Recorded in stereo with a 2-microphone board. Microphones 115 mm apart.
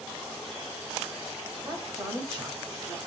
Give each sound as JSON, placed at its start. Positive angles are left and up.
{"t": 1.6, "sound": "a man speaking", "side_deg": -20, "distance_m": 1.5}